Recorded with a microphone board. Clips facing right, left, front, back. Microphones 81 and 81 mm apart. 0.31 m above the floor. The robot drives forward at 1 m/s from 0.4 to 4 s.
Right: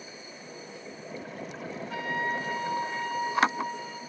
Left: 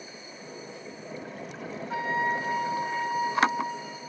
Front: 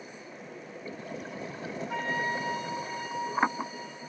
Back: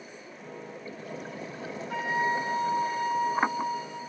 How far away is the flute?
About 0.7 m.